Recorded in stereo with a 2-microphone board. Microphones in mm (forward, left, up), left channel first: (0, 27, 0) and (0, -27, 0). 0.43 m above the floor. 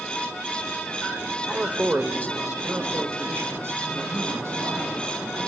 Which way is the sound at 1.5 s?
20° right (ahead or behind).